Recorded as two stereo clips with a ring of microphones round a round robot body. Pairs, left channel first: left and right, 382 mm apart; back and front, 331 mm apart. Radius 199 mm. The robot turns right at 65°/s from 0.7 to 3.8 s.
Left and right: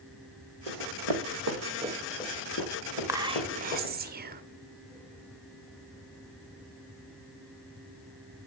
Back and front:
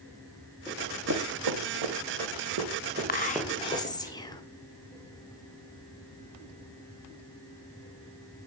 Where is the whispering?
165° right, 0.8 m; by 4.4 s 115° right, 0.8 m.